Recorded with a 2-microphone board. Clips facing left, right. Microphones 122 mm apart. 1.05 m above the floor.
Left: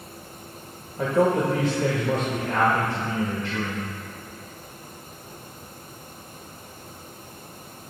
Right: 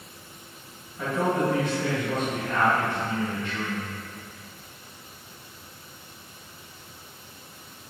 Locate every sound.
1.0 s a man speaking: 40° left (ahead or behind), 1.0 m